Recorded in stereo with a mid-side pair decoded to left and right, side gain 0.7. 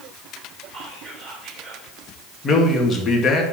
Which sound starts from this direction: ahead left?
A man speaking, at 2.4 s.